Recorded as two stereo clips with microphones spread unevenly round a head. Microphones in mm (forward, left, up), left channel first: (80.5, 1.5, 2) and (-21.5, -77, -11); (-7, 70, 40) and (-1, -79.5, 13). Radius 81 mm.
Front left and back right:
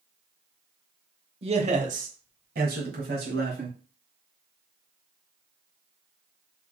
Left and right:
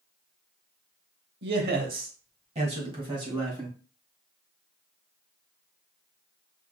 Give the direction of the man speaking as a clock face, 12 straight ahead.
3 o'clock.